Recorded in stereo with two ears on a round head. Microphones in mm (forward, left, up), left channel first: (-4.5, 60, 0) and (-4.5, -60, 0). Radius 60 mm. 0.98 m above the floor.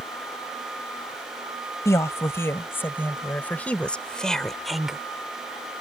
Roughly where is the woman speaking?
Left.